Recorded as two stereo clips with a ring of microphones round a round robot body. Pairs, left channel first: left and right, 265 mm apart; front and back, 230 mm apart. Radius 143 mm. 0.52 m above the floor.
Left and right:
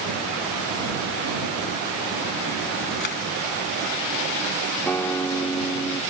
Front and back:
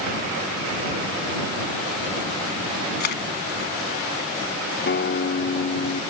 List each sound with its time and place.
3.0 s a camera shutter: 40° left
4.9 s a guitar: 10° left